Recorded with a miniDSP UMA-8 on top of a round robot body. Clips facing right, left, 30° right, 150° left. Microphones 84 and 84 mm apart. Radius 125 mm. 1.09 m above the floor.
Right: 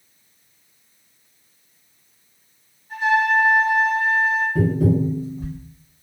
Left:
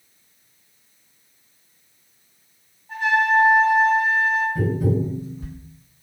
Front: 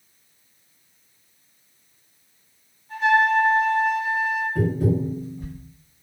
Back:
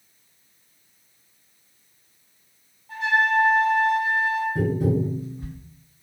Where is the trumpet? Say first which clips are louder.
Even, front 3 dB; 135° left, 1.4 m.